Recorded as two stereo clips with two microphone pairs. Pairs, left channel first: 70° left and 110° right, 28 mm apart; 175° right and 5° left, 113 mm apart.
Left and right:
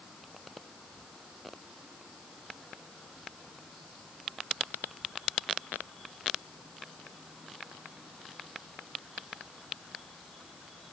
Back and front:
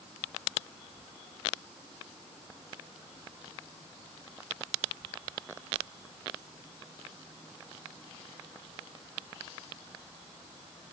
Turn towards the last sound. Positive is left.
No sound to turn to.